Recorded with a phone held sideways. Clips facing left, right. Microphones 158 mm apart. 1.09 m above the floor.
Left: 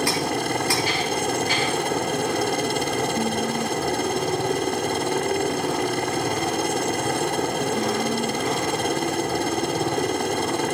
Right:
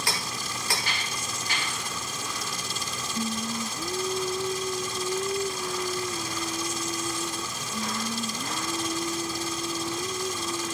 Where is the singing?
5° left (ahead or behind).